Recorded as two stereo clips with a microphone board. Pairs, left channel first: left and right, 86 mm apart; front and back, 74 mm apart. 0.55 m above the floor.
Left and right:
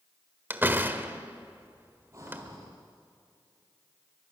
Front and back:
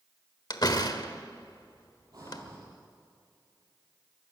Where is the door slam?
25° right, 1.3 m.